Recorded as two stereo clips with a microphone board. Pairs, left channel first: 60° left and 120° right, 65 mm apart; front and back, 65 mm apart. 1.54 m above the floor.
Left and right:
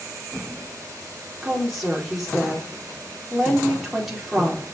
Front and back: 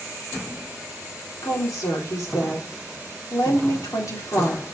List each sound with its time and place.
1.4 s a woman speaking: 35° right, 4.5 m